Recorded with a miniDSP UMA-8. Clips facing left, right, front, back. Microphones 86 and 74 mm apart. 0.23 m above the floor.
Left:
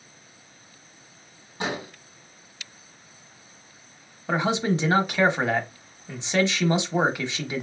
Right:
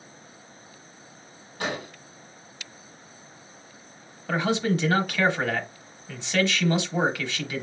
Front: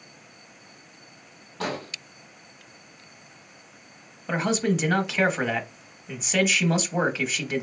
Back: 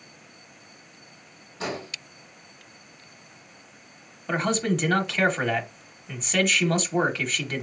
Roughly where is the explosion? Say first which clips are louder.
Left 1 dB, front 1 dB; ahead.